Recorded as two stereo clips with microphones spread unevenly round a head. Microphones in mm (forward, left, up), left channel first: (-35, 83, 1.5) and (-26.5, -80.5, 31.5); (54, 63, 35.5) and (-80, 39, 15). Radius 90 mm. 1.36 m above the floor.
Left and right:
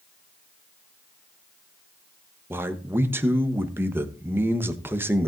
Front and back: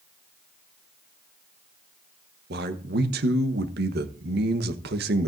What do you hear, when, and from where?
2.5 s a man speaking: 160° right, 1.1 m